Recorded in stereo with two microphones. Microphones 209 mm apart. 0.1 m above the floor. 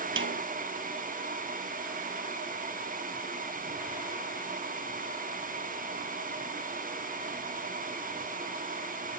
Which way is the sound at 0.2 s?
70° right (ahead or behind).